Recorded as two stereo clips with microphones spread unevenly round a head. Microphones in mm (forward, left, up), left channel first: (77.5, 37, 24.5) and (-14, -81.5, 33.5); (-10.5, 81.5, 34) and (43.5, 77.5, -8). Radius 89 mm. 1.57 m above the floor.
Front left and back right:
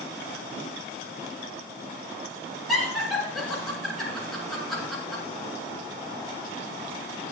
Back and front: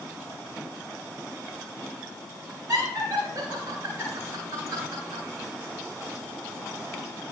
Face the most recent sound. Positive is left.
turn(degrees=-35)